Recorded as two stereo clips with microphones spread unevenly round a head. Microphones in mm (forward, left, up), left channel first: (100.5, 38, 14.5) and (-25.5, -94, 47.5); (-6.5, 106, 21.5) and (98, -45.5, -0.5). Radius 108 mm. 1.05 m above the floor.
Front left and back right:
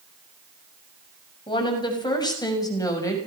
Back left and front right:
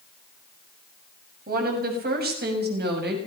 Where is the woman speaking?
20° right, 6.5 m; by 3.2 s 25° right, 6.5 m.